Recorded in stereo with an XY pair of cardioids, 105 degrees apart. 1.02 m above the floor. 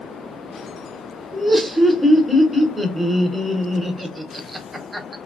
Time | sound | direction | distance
1.3 | laughter | 15° right | 1.0 m